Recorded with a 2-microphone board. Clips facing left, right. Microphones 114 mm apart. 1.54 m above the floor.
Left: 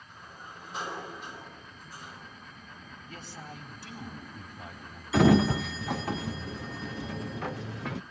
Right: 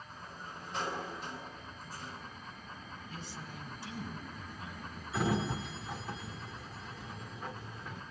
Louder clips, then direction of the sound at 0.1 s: Left 2 dB; 15° left (ahead or behind).